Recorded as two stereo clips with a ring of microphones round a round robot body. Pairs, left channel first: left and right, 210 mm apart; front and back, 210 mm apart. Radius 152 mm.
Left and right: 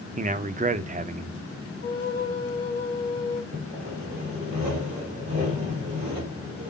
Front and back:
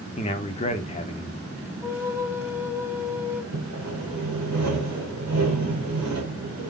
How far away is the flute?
About 1.4 m.